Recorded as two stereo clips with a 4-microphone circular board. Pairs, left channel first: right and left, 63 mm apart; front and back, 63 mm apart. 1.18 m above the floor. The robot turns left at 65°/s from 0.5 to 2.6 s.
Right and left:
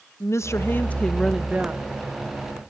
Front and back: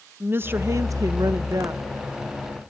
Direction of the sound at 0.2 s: 130° right.